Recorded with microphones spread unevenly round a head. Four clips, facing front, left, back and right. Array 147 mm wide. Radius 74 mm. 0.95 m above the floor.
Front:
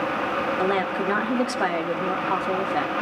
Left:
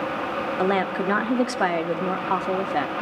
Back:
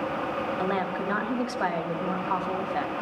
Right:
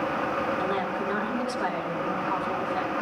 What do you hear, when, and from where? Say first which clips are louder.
0.6 s a woman speaking: left 5 dB, front 5 dB; 60° left, 1.4 m